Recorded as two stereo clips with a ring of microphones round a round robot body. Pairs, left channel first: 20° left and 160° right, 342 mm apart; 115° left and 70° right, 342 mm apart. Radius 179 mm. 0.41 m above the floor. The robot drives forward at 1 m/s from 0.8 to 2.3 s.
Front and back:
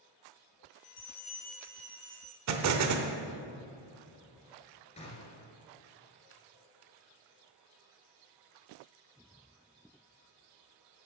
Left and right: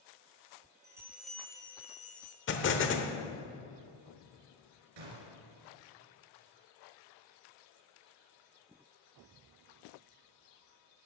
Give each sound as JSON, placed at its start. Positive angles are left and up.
{"t": 0.8, "sound": "a bell", "azimuth_deg": 10, "distance_m": 1.1}
{"t": 2.5, "sound": "an explosion", "azimuth_deg": 165, "distance_m": 0.9}
{"t": 5.0, "sound": "a gunshot", "azimuth_deg": -50, "distance_m": 2.5}